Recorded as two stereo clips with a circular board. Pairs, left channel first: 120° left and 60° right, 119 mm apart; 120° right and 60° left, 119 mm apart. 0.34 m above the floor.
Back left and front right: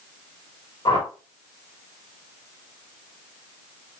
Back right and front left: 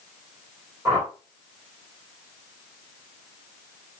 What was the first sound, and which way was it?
A whoosh, 120° left.